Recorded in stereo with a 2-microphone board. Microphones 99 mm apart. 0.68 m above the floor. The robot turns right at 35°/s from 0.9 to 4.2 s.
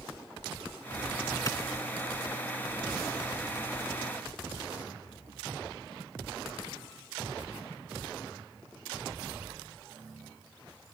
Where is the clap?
40° left (ahead or behind).